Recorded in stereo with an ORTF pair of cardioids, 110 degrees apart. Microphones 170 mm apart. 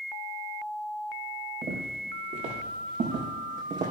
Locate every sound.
1.6 s footsteps: 55° right, 5.5 m